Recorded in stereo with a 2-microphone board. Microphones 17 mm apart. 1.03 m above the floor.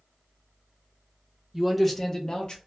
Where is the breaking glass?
I don't hear breaking glass.